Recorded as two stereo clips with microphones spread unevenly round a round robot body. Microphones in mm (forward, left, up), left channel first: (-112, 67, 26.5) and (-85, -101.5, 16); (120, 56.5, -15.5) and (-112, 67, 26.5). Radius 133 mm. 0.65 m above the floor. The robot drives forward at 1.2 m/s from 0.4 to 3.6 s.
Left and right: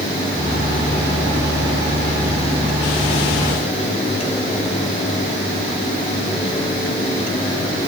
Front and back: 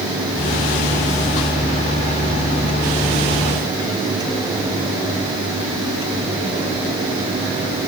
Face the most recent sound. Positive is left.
No sound to turn to.